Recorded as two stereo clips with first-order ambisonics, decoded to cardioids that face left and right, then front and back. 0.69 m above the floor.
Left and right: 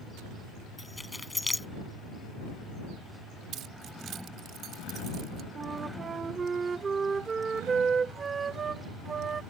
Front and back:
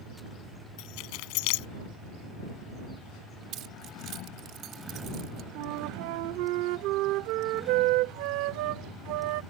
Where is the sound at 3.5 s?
135° right.